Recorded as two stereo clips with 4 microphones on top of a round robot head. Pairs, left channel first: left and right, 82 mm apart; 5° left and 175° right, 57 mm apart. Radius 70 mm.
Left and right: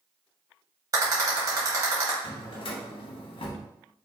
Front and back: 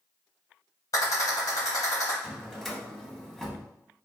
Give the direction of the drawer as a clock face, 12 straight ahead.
9 o'clock.